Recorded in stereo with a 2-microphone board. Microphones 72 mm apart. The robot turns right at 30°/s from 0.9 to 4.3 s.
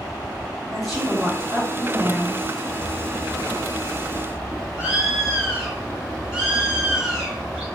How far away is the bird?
About 1.4 m.